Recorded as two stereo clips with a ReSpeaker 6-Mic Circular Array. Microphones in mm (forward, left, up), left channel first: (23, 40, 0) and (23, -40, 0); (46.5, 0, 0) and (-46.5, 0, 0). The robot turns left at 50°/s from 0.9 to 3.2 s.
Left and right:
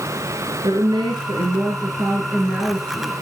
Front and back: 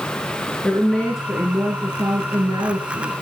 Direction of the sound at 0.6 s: 80° right.